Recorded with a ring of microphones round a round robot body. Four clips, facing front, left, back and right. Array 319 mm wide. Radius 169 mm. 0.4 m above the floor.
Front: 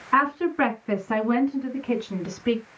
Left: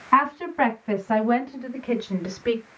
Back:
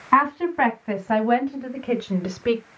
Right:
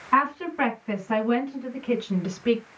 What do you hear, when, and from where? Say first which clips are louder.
0.1 s a woman speaking: left 3 dB, back 3 dB; 165° left, 4 m; by 2.6 s 175° left, 2.5 m